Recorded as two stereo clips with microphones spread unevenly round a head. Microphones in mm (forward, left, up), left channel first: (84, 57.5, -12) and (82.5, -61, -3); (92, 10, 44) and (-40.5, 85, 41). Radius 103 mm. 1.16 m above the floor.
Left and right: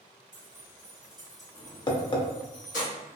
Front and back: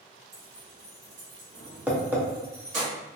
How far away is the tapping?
About 0.7 m.